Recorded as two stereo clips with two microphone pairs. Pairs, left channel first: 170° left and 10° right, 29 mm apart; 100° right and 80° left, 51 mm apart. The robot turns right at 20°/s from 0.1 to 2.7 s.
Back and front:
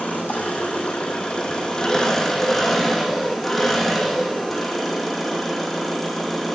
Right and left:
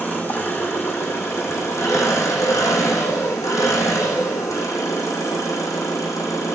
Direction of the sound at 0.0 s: 155° right.